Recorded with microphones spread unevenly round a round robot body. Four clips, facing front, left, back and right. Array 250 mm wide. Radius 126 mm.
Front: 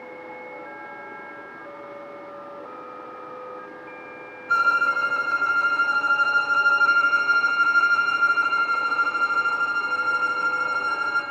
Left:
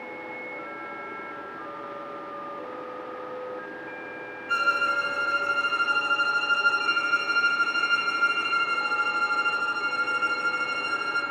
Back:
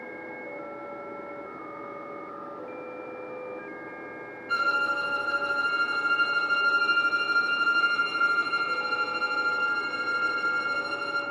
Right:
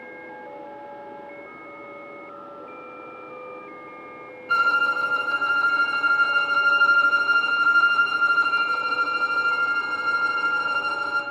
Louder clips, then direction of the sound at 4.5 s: Right 4 dB, front 6 dB; 40° right.